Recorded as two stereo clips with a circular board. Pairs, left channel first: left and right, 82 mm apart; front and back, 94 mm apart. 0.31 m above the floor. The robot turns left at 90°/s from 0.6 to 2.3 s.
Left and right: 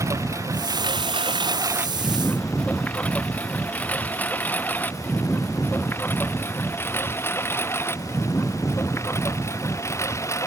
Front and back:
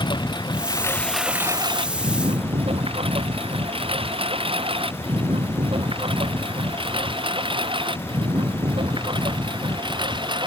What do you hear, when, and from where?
0.0 s a lawn mower: 35° right; by 10.5 s 145° left